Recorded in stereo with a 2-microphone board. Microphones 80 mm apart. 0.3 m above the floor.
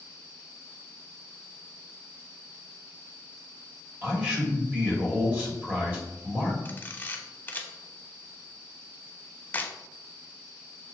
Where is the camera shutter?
25° left (ahead or behind), 0.5 m.